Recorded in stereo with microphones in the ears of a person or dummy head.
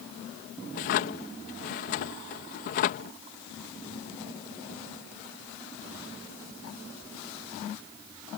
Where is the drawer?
45° left (ahead or behind).